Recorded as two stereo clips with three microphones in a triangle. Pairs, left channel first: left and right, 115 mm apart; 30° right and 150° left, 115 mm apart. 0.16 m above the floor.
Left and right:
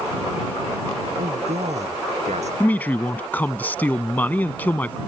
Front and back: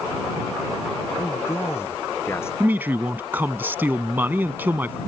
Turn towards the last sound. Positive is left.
turn(degrees=125)